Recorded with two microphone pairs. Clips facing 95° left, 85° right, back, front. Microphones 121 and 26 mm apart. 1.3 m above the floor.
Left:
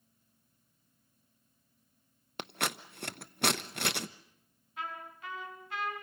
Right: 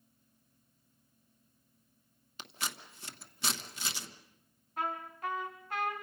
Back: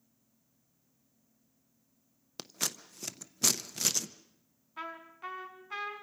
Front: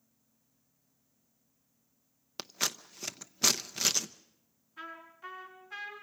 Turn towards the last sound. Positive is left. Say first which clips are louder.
# right 5 dB, back 3 dB
turn(degrees=-125)